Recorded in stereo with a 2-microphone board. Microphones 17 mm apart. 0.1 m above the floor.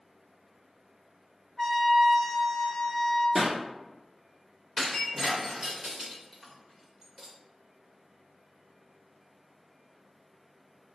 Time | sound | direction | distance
1.6 | a trumpet | 20° left (ahead or behind) | 1.2 m
3.4 | a pop | 30° right (ahead or behind) | 0.9 m
4.8 | breaking glass | 15° right (ahead or behind) | 1.4 m